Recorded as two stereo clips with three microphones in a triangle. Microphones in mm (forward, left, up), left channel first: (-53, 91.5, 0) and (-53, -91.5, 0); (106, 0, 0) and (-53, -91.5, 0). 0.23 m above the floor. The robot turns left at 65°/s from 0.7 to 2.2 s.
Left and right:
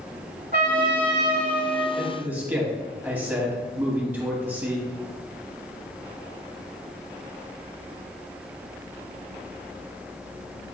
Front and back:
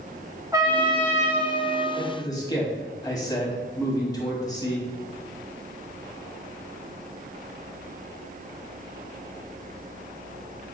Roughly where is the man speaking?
Ahead.